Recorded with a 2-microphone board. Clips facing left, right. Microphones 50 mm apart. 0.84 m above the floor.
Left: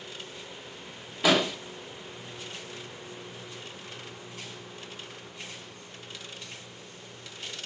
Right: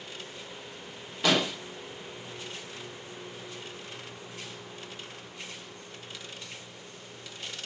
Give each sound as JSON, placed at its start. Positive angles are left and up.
{"t": 1.2, "sound": "an explosion", "side_deg": 10, "distance_m": 1.2}